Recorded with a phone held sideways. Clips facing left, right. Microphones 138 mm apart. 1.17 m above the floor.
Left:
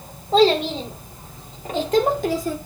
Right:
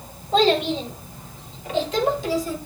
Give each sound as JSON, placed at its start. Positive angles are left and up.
{"t": 0.3, "sound": "a child speaking", "side_deg": 35, "distance_m": 3.0}